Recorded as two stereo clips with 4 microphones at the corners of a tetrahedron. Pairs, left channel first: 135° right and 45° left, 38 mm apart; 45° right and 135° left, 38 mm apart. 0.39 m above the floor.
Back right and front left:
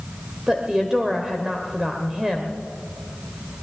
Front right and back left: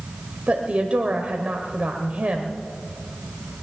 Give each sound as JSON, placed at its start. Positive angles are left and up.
{"t": 0.5, "sound": "a woman speaking", "azimuth_deg": 115, "distance_m": 1.2}